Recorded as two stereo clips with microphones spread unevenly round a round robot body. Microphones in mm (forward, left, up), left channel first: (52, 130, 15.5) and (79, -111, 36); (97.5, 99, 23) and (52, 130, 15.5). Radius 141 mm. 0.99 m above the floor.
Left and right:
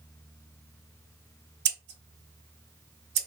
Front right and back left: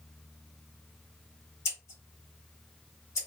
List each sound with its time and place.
1.6 s scissors: 50° right, 0.7 m